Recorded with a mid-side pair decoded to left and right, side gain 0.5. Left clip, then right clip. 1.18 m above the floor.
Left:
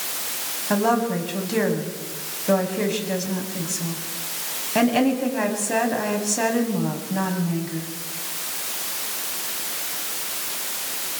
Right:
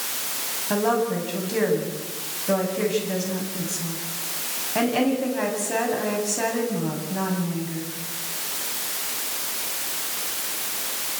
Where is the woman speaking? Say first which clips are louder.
Left 1 dB; 25° left, 8.5 m.